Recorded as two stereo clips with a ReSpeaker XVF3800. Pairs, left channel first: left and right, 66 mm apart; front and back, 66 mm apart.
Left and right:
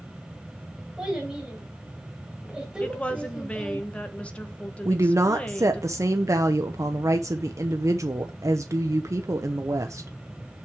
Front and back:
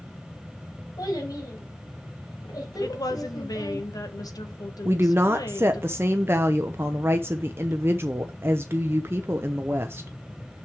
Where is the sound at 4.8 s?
125° right, 0.6 m.